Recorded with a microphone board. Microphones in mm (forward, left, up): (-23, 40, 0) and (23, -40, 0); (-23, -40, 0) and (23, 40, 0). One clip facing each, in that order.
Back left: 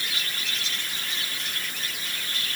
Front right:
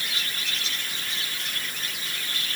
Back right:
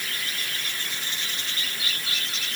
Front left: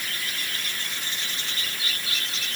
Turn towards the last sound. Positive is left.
No sound to turn to.